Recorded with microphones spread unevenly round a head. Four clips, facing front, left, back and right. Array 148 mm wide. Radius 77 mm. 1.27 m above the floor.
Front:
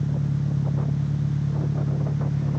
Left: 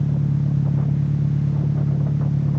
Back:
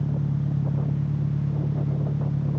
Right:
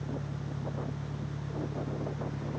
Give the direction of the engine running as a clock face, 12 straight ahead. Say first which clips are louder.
Left 15 dB, front 1 dB; 9 o'clock.